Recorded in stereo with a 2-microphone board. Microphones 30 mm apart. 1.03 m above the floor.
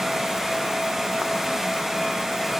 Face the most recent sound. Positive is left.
No sound to turn to.